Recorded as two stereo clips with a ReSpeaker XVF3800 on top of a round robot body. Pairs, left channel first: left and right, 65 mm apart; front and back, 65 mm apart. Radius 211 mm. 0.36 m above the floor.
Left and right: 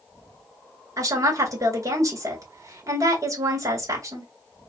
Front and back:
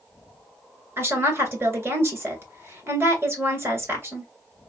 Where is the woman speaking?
125° right, 2.5 m.